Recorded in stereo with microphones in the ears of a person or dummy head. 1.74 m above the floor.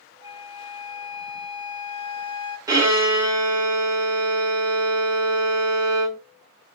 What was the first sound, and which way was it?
A flute, 20° right (ahead or behind).